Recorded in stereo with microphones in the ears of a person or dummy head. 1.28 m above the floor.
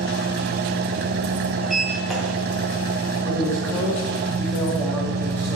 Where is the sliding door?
5° left (ahead or behind), 2 m.